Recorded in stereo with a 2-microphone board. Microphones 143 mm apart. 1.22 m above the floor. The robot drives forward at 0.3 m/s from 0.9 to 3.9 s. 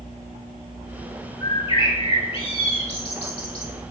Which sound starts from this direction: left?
A bird, at 1.4 s.